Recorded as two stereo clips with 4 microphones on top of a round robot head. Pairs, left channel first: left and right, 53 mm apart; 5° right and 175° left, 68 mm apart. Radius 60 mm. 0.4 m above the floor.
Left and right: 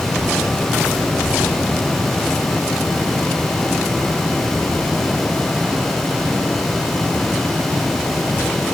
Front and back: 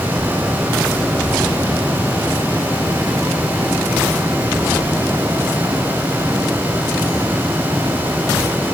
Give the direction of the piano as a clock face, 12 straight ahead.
No piano in this recording.